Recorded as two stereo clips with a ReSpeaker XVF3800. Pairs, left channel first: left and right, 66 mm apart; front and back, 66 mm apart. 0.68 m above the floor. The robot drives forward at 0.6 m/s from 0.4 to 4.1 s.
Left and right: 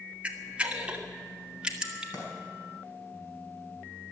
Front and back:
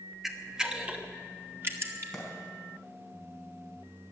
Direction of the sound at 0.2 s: 100° right.